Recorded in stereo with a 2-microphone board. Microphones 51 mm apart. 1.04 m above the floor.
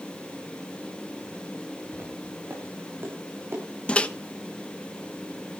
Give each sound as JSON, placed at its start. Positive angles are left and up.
{"t": 1.9, "sound": "footsteps", "side_deg": -40, "distance_m": 7.5}
{"t": 3.9, "sound": "a microwave", "side_deg": 20, "distance_m": 0.9}